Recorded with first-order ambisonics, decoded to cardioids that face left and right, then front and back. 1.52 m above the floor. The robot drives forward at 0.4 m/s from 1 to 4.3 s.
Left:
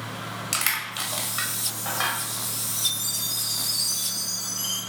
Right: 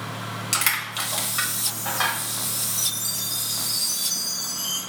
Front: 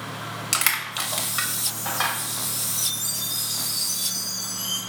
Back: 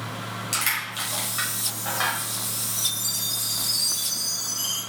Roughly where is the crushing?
Ahead.